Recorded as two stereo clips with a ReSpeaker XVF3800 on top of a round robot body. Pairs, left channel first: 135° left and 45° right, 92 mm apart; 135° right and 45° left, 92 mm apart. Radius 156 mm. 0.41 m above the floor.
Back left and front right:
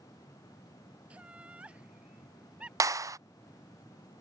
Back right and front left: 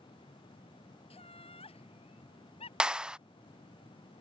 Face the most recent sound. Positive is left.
turn(degrees=-30)